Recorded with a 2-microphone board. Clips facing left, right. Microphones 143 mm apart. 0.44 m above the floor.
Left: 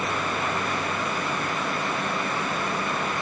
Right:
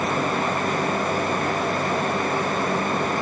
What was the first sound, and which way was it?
Only background noise.